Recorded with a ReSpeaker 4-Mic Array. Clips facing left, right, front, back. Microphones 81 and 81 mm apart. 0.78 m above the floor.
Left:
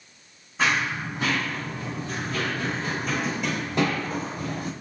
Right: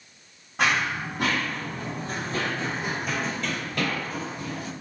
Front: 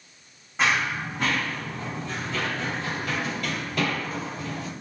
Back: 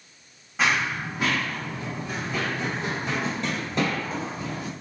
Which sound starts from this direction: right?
Running footsteps, at 0.6 s.